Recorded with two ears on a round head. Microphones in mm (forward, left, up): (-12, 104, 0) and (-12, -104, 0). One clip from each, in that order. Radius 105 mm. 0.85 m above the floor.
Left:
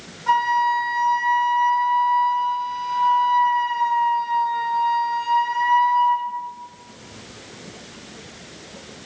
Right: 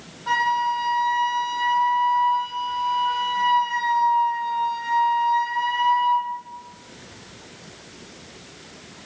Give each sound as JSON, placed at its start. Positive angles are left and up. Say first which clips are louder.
{"t": 0.3, "sound": "a flute", "louder": "left 3 dB", "side_deg": -20, "distance_m": 3.5}